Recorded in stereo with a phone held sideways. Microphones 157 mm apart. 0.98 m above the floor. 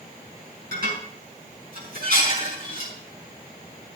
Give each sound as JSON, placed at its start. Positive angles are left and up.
{"t": 0.7, "sound": "dishes clattering", "side_deg": -75, "distance_m": 6.0}